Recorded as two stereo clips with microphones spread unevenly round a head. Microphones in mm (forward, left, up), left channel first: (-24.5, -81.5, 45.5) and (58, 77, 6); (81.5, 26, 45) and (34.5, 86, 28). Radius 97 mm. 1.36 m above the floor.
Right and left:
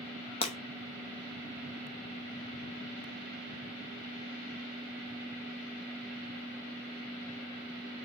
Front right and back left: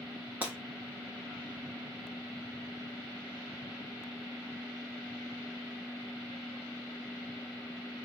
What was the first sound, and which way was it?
Breaking glass, 140° right.